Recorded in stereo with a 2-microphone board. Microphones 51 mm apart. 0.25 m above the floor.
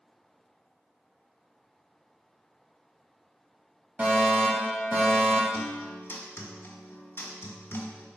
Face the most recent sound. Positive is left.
turn(degrees=45)  # may be behind; listen again after turning